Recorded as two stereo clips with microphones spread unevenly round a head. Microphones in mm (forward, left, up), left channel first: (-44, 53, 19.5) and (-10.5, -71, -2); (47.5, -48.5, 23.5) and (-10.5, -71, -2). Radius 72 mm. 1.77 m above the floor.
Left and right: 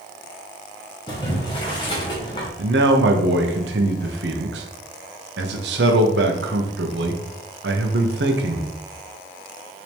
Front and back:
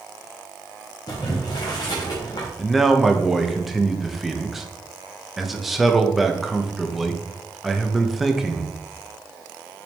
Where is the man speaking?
65° right, 1.1 m.